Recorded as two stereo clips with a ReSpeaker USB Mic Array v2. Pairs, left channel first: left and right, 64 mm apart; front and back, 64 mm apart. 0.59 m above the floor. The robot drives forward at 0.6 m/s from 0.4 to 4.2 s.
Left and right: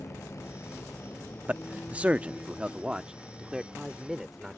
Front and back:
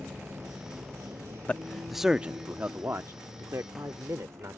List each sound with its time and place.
0.0 s a vehicle: 125° left; by 4.6 s 160° left
1.5 s a man speaking: 40° right; by 4.6 s 170° right